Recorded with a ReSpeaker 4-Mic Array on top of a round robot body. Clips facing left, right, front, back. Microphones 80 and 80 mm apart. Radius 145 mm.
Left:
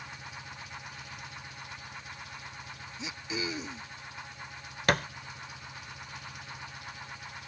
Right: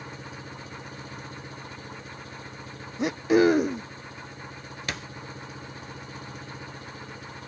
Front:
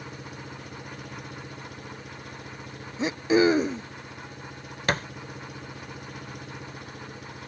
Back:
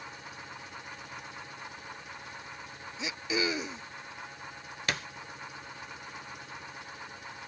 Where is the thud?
50° left.